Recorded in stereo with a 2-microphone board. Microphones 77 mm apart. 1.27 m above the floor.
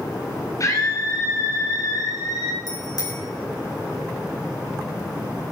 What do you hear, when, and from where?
0.6 s a scream: 45° left (ahead or behind), 8 m; by 2.6 s 60° left (ahead or behind), 7.5 m
2.7 s a bicycle bell: 55° left (ahead or behind), 6.5 m